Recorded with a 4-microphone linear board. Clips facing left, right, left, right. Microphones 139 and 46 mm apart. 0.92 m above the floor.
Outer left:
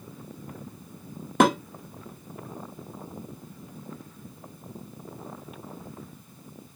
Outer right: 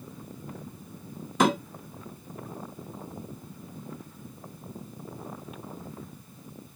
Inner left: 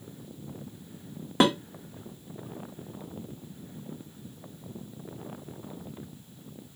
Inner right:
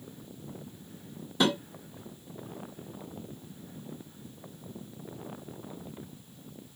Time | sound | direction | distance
1.4 | dishes clattering | 60° left (ahead or behind) | 0.8 m